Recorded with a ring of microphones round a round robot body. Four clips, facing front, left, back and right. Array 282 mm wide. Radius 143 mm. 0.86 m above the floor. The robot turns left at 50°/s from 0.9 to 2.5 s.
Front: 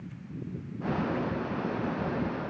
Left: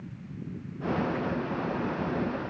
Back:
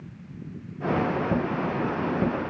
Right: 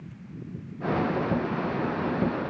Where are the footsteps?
I don't hear footsteps.